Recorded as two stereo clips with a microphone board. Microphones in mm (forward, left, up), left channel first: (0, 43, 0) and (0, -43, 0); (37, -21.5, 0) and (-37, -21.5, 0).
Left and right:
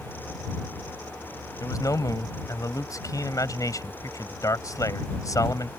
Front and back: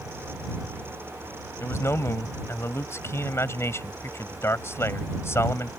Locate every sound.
1.6 s a man speaking: 50° left